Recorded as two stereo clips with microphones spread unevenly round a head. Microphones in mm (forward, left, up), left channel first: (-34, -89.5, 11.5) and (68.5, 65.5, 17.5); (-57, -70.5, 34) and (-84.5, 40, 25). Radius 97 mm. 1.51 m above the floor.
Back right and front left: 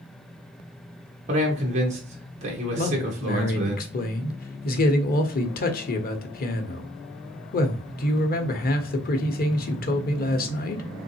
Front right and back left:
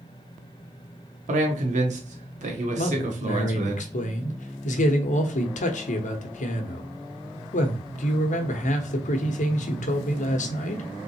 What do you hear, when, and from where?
1.3 s a man speaking: 115° left, 1.2 m
2.8 s a man speaking: 80° right, 0.9 m